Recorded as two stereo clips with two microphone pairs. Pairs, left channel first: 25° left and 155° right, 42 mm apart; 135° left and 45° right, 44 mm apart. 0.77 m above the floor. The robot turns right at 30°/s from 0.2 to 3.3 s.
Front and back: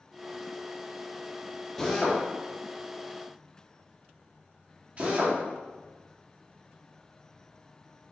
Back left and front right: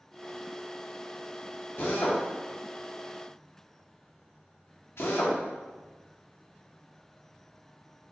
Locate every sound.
1.8 s a drill: 105° left, 0.9 m; by 5.4 s 150° left, 0.9 m